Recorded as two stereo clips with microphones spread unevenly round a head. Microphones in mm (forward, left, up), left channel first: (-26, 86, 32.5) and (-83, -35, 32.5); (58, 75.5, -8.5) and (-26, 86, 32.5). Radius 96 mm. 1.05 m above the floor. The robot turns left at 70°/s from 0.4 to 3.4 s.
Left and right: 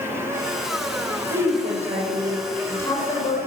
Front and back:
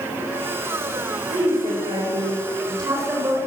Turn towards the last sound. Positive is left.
turn(degrees=95)